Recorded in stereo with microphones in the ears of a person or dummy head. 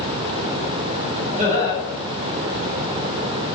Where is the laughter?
40° right (ahead or behind), 5 m.